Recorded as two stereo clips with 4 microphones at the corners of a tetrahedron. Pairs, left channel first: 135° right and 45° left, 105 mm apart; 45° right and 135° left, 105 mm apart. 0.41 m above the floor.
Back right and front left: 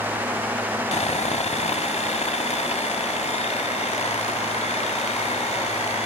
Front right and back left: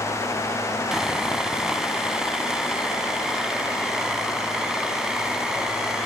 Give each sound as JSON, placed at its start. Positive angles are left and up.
{"t": 0.9, "sound": "sawing", "azimuth_deg": -140, "distance_m": 0.8}